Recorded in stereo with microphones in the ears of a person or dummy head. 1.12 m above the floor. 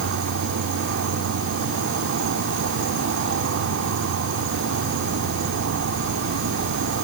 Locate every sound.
0.0 s an insect: 65° right (ahead or behind), 1.2 m